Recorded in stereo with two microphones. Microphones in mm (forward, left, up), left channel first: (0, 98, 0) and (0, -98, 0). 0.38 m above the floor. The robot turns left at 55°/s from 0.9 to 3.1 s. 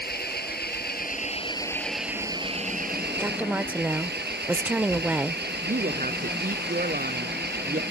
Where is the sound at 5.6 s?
45° right (ahead or behind).